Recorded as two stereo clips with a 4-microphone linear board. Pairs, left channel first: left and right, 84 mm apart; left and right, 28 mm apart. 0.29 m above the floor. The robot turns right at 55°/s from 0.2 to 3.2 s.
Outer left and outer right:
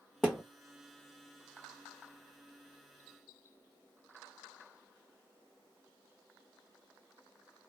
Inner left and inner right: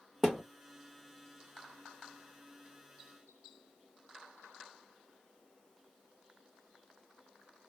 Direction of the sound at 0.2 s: 5° left (ahead or behind).